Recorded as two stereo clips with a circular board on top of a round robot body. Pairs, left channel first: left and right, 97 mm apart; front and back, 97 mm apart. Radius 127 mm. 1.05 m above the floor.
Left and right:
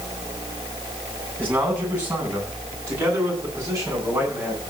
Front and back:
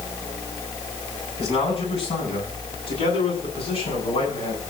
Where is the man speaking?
15° right, 9.5 m; by 4.6 s 25° right, 11 m.